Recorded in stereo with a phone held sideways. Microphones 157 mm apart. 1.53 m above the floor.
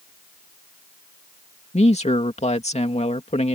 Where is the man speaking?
45° left (ahead or behind).